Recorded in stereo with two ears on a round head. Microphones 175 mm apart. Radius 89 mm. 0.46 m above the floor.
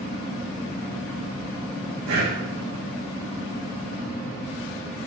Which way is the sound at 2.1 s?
85° right.